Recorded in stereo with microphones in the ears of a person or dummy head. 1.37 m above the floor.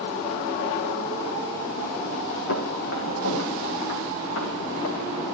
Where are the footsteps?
70° left (ahead or behind), 5 m.